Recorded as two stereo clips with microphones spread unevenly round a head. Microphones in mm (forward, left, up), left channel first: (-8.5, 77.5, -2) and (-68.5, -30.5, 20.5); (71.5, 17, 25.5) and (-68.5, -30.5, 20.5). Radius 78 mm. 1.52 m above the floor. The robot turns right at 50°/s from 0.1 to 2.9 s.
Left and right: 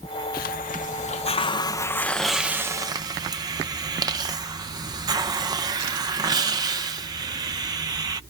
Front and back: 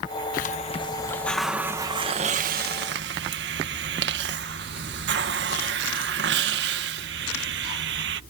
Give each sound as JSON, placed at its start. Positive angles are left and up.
{"t": 0.3, "sound": "a hiss", "azimuth_deg": 55}